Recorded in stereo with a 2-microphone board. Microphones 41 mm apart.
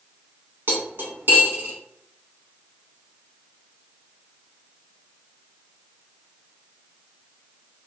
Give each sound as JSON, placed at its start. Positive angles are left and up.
{"t": 0.7, "sound": "cutlery clinking", "side_deg": -65, "distance_m": 1.2}